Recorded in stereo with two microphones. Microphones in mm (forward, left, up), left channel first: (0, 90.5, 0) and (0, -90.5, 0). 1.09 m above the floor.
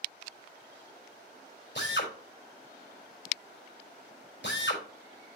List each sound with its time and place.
1.8 s a drill: 85° left, 4 m